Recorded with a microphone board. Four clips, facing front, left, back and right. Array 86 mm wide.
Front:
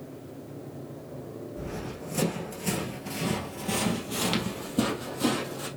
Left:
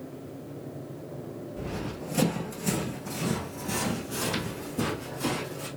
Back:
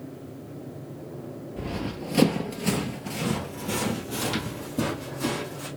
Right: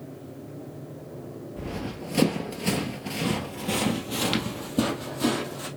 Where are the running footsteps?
170° right, 1.5 m; by 5.7 s 60° right, 2.5 m.